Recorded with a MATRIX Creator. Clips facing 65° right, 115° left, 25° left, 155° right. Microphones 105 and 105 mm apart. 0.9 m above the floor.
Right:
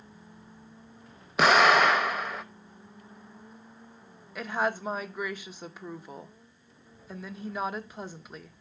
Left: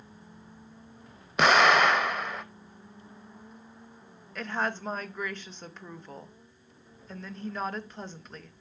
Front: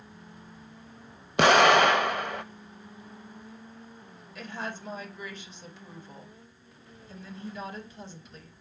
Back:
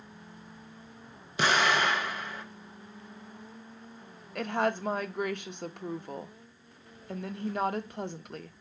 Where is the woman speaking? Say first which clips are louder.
Right 2 dB, back 9 dB; 150° right, 0.8 m.